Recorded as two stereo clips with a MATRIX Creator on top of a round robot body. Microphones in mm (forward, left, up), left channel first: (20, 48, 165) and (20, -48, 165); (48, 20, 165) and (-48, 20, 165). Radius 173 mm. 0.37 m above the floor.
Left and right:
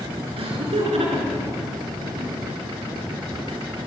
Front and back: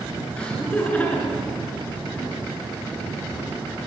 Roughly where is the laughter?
Right.